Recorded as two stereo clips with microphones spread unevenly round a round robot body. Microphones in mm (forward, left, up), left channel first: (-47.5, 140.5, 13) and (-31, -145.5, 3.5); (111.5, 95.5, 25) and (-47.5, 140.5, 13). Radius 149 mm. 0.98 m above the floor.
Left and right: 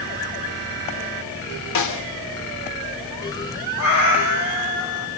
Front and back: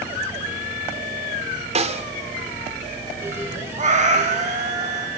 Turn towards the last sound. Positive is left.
turn(degrees=120)